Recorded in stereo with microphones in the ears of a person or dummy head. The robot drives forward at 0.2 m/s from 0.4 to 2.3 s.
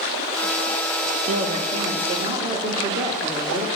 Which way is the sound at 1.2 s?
35° right (ahead or behind).